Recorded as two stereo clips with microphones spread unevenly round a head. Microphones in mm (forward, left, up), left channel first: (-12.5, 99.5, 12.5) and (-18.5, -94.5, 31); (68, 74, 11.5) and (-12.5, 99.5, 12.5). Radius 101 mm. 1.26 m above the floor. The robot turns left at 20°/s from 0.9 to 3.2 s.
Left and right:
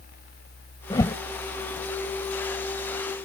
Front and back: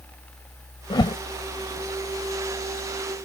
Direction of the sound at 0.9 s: 15° left.